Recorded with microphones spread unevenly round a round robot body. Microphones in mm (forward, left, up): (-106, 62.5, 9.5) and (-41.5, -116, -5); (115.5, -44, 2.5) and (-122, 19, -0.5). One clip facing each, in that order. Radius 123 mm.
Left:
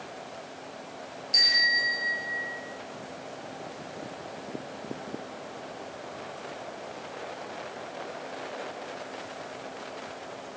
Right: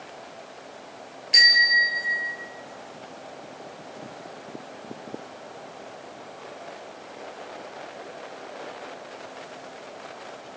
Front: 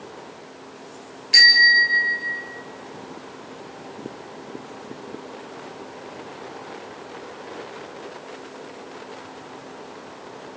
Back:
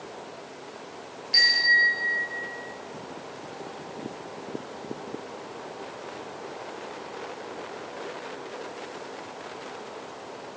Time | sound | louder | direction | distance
1.3 | a bicycle bell | right 7 dB, front 6 dB | 25° right | 5.5 m